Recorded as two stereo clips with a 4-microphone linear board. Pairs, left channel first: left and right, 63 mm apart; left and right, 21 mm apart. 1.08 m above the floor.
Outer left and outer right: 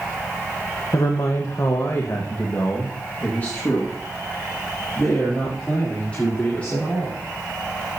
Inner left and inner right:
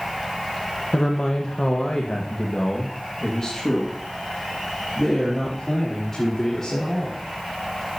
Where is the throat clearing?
I don't hear throat clearing.